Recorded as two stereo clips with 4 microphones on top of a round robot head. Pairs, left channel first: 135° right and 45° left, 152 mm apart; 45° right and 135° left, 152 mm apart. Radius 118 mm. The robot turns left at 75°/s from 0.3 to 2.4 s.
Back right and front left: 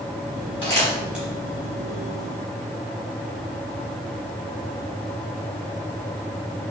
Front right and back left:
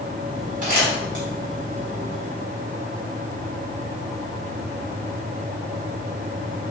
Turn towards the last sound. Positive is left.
turn(degrees=35)